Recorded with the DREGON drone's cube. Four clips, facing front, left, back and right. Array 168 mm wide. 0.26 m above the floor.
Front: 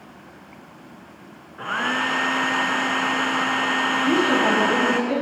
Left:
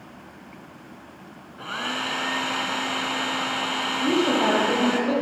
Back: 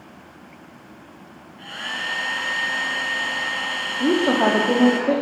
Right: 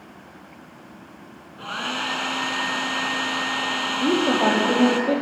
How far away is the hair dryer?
About 2 m.